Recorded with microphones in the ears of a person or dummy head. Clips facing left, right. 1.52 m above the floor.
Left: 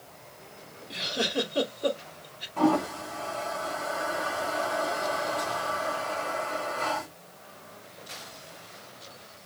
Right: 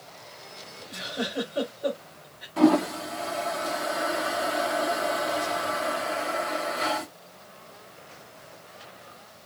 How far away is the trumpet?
I don't hear a trumpet.